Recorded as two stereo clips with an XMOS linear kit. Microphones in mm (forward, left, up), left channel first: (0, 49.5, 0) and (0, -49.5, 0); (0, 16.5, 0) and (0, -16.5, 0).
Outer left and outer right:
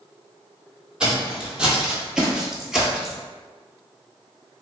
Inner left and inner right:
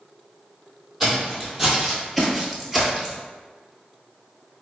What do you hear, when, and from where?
1.0 s footsteps: 5° right (ahead or behind), 1.2 m; by 3.2 s centre (ahead or behind), 0.8 m